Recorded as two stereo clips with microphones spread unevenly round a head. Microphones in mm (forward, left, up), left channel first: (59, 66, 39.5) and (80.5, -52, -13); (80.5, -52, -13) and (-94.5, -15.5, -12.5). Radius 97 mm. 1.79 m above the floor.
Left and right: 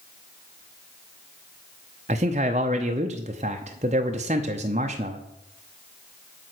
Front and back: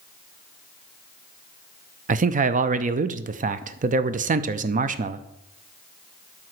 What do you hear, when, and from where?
2.1 s a man speaking: 145° right, 0.6 m